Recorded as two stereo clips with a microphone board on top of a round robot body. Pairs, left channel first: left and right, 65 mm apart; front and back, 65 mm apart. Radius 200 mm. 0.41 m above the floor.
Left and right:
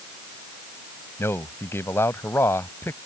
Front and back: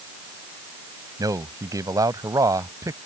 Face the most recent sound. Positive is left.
turn(degrees=145)